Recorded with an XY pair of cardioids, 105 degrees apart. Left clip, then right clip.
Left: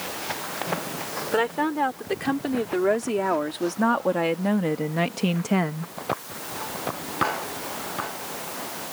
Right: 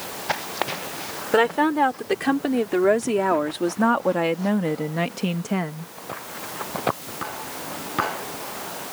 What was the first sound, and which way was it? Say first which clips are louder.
A woman speaking: right 5 dB; 35° right.